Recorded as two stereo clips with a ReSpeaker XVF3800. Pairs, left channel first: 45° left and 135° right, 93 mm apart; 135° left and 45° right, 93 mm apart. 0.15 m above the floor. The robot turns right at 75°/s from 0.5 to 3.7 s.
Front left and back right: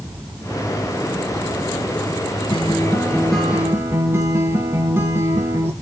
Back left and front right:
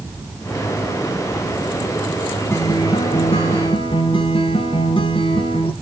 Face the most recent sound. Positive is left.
turn(degrees=160)